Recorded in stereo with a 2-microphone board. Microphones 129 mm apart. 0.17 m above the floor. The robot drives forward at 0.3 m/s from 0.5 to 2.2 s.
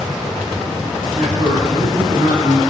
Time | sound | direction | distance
1.1 | a man speaking | 40° right (ahead or behind) | 7 m